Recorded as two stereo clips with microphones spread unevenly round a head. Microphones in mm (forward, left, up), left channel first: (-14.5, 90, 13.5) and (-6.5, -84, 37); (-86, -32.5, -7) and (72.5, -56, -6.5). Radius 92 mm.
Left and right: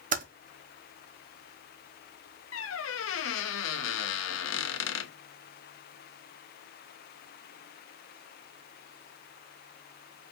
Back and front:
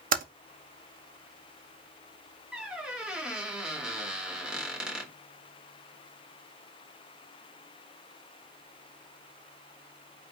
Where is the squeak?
75° left, 0.8 m.